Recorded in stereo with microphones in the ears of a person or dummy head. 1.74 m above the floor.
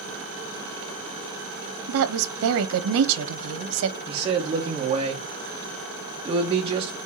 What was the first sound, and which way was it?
A woman speaking, 75° right (ahead or behind).